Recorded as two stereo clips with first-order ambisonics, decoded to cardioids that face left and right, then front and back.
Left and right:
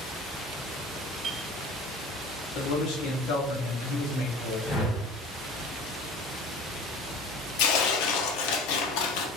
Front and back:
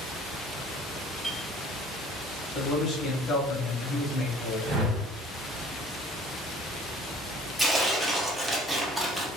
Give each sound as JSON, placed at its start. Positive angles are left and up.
{"t": 1.2, "sound": "a clink", "azimuth_deg": -100, "distance_m": 0.8}
{"t": 2.5, "sound": "a man speaking", "azimuth_deg": 65, "distance_m": 0.9}
{"t": 4.7, "sound": "a whoosh", "azimuth_deg": 135, "distance_m": 1.0}
{"t": 7.6, "sound": "tearing paper", "azimuth_deg": 90, "distance_m": 0.5}